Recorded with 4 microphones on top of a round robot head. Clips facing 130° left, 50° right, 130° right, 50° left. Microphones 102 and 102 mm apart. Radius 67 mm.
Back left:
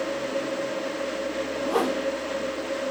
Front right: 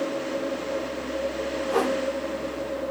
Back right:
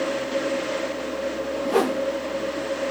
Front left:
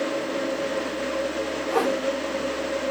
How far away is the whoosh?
About 0.7 m.